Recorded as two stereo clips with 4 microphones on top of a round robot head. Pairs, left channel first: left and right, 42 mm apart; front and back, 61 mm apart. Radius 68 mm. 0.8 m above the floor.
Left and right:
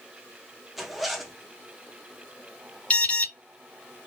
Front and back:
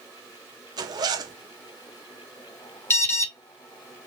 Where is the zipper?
175° right, 0.6 m.